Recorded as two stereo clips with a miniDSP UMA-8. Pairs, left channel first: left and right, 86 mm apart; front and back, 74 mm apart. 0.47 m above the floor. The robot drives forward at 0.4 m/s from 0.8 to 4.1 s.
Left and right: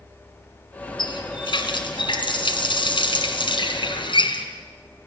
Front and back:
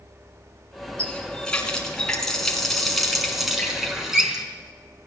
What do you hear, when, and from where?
1.0 s a running tap: 75° left, 3.5 m; by 4.5 s 95° left, 3.5 m